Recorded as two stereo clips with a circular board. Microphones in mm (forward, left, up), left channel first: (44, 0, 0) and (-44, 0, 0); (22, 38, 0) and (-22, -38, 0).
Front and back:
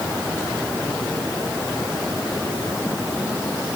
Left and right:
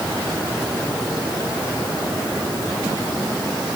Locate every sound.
Only background noise.